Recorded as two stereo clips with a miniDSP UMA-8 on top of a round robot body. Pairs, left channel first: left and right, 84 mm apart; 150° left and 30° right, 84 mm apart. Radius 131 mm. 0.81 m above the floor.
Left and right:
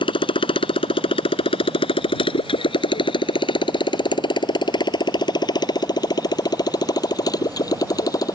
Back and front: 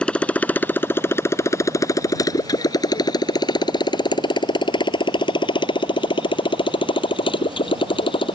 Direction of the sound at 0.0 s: 70° left.